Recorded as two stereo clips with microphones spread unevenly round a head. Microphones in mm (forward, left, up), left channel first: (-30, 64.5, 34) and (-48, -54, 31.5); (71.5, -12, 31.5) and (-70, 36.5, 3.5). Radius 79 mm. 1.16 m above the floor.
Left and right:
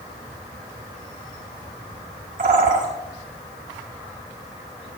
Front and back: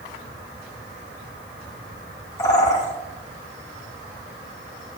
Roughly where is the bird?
Right.